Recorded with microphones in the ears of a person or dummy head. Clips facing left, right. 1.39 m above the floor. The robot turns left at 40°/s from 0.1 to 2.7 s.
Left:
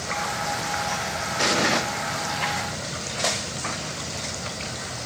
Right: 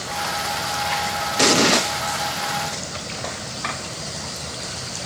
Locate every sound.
1.4 s an explosion: 55° right (ahead or behind), 0.8 m; by 1.8 s 45° right (ahead or behind), 0.8 m